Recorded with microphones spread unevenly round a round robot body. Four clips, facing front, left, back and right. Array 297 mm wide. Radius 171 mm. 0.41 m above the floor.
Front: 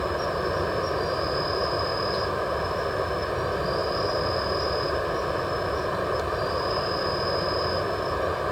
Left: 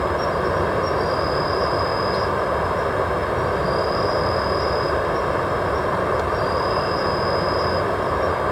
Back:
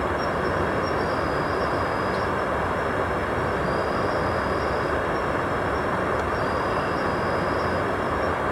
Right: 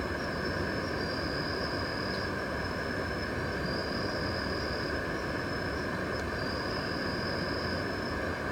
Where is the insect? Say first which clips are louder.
Left 13 dB, back 2 dB; 85° left.